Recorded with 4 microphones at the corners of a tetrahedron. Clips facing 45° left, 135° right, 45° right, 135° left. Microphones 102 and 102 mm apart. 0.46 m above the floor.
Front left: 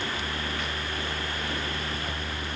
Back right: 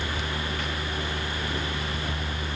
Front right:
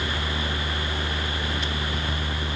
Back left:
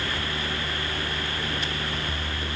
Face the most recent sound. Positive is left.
No sound to turn to.